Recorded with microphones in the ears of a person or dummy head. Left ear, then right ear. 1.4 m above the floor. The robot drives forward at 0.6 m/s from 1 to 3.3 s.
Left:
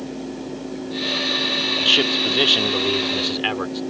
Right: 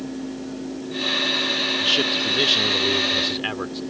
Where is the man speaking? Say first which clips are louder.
Left 5 dB; 10° left (ahead or behind).